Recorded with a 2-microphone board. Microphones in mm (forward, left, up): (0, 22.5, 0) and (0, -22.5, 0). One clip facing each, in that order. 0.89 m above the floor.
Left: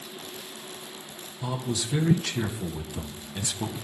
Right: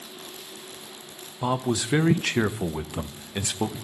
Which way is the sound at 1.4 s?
55° right (ahead or behind).